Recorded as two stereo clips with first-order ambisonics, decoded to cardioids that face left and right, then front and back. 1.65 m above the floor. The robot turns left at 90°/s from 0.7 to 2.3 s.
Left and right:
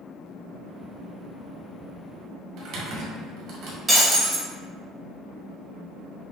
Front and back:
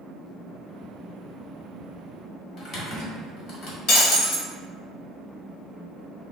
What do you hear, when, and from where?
2.6 s typing on a keyboard: 55° right, 1.3 m
3.9 s breaking glass: 10° right, 1.2 m